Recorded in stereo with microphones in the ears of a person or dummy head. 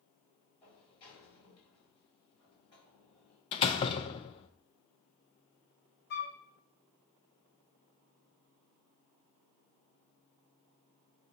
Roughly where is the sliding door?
Left.